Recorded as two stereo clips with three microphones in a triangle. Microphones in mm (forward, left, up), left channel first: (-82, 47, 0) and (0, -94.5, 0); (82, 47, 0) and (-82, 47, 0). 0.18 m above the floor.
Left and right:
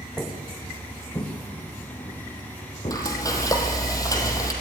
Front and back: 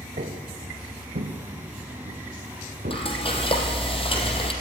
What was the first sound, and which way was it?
Footsteps, 155° right.